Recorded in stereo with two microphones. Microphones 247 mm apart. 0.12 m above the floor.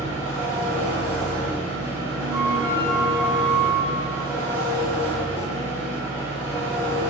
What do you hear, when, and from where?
0.0 s an engine running: 10° left (ahead or behind), 1.5 m
2.3 s a flute: 15° right (ahead or behind), 0.6 m